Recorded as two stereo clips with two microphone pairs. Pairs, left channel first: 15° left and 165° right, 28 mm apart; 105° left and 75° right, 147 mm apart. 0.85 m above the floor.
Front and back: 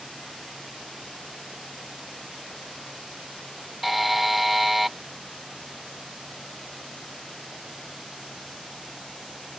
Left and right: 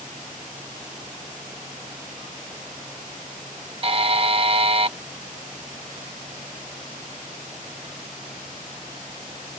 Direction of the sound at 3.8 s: 80° right.